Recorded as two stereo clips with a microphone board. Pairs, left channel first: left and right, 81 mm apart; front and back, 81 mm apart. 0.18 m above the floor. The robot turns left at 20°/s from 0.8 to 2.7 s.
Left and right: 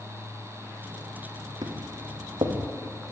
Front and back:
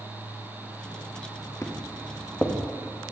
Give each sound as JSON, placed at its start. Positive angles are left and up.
{"t": 1.6, "sound": "footsteps", "azimuth_deg": -55, "distance_m": 4.5}